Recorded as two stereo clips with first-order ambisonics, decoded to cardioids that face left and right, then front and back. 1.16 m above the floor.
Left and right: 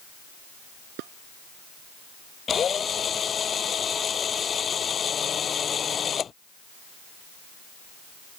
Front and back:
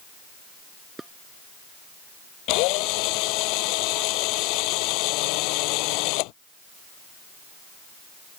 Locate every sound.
1.0 s dishes clattering: 100° right
2.5 s a drill: 25° left